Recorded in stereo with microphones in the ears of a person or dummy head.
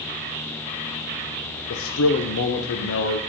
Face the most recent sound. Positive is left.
turn(degrees=80)